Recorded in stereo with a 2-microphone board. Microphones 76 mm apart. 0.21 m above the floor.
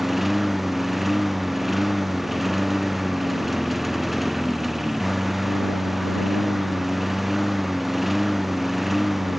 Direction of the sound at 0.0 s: Centre (ahead or behind).